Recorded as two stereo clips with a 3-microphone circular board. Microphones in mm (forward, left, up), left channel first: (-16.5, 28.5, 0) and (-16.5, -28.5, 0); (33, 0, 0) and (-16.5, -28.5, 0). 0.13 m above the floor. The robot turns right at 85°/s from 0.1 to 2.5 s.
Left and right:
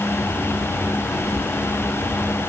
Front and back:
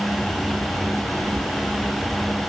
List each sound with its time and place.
Only background noise.